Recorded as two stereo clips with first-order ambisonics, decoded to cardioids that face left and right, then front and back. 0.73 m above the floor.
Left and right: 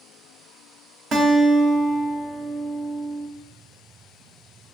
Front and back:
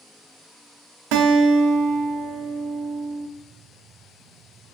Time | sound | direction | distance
1.1 | a guitar | 155° right | 0.6 m